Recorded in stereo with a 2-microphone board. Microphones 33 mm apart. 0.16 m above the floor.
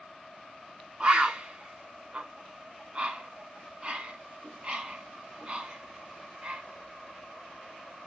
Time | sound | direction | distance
1.0 | a bird | 30° right (ahead or behind) | 1.2 m